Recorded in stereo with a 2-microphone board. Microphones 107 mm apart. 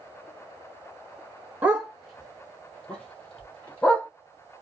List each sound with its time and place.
1.6 s a dog barking: 15° right (ahead or behind), 1.3 m; by 4.1 s 15° left (ahead or behind), 3.5 m